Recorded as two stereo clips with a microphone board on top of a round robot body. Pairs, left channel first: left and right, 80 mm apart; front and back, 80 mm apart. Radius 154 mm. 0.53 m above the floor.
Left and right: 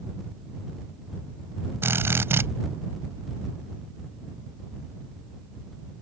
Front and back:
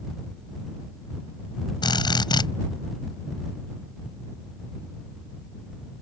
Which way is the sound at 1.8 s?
30° right.